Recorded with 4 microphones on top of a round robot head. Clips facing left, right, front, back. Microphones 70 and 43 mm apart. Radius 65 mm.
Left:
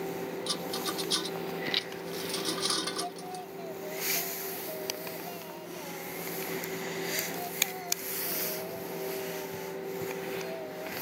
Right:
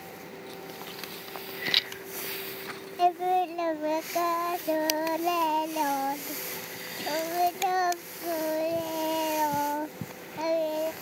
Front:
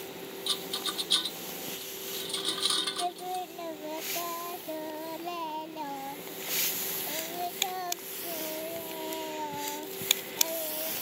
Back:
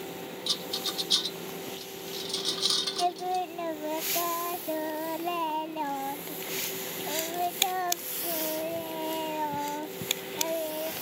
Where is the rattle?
70° left.